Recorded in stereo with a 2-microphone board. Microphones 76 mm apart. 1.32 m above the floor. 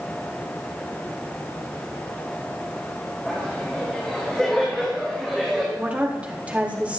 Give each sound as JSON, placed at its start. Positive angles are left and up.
{"t": 3.2, "sound": "laughter", "side_deg": 15, "distance_m": 4.0}
{"t": 5.8, "sound": "a woman speaking", "side_deg": -15, "distance_m": 2.5}